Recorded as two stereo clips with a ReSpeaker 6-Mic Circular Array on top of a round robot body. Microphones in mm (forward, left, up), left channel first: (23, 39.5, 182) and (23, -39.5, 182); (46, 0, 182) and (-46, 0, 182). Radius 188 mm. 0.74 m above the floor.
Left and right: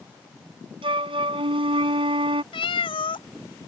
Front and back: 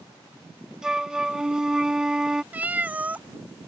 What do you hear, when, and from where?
0.8 s a flute: 95° right
2.5 s a cat meowing: 105° left